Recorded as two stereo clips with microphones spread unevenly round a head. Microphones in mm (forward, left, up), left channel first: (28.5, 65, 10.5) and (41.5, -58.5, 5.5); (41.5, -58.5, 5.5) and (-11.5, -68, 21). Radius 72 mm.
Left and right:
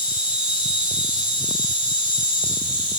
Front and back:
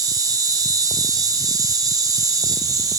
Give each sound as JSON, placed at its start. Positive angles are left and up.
{"t": 0.0, "sound": "an insect", "azimuth_deg": -165, "distance_m": 8.0}